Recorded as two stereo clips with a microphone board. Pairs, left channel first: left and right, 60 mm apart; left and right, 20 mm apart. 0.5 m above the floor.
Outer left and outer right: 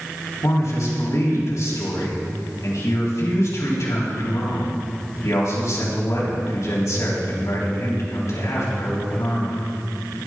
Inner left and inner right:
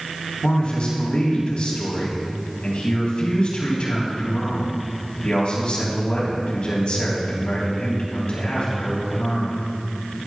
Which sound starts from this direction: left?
A man speaking, at 0.4 s.